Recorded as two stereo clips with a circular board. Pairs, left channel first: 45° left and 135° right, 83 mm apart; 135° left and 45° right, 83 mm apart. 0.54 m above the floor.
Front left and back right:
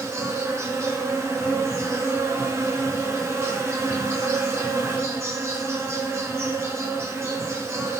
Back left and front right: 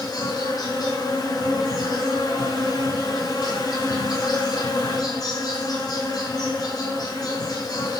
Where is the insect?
170° left, 4 m.